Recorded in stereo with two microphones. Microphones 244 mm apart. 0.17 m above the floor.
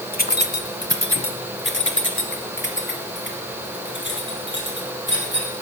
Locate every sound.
0.1 s keys jangling: 35° left (ahead or behind), 0.9 m; by 5.5 s 45° left (ahead or behind), 4 m